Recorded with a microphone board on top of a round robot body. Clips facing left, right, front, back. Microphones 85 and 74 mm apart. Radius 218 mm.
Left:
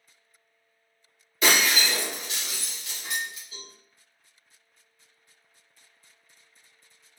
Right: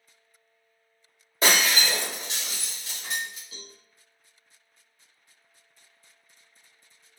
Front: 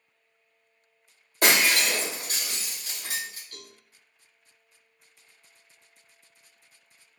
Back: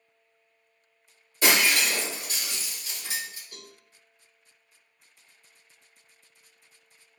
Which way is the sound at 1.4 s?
35° right.